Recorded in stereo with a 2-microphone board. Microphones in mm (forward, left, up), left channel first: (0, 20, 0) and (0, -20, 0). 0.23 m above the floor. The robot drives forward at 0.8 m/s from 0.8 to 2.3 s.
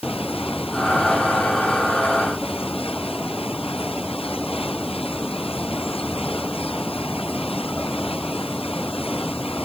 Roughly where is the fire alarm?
I don't hear a fire alarm.